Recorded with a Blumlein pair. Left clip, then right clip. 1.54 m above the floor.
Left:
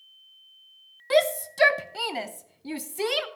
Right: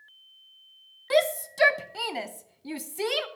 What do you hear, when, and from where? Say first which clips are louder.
1.1 s a shout: left 2 dB; straight ahead, 0.8 m